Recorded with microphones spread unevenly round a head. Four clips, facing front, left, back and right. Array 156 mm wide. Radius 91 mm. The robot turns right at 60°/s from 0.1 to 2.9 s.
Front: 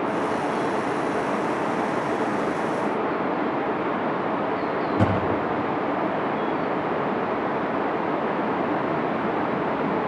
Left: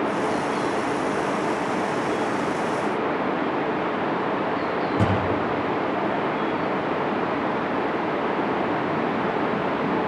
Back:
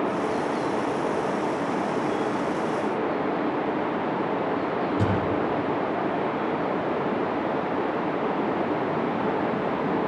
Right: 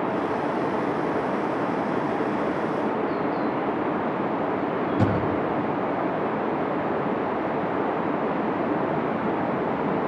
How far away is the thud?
About 8 m.